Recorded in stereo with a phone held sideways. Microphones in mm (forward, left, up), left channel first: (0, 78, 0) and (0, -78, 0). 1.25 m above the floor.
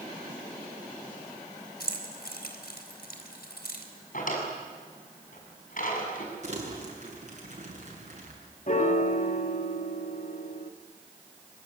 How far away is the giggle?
I don't hear a giggle.